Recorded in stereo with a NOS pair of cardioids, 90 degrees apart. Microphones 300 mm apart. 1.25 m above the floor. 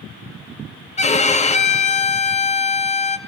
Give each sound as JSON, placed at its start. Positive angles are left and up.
{"t": 1.0, "sound": "a violin", "azimuth_deg": 25, "distance_m": 1.2}